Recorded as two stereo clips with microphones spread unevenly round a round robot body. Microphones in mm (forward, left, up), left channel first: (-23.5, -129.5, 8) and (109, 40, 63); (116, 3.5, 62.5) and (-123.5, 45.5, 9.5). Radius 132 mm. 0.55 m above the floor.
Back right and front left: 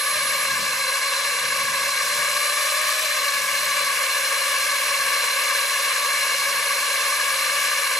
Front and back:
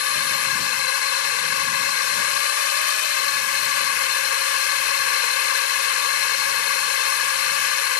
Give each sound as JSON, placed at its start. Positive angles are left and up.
{"t": 0.0, "sound": "a drone", "azimuth_deg": -45}